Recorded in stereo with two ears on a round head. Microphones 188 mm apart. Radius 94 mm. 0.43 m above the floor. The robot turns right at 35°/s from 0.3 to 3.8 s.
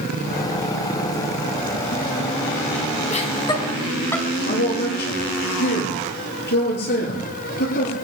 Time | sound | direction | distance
3.1 | laughter | 35° left (ahead or behind) | 3 m
4.5 | a man speaking | 55° left (ahead or behind) | 8.5 m